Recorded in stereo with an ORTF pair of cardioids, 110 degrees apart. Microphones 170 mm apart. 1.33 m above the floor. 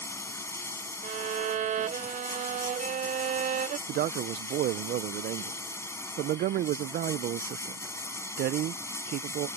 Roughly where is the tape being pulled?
I don't hear tape being pulled.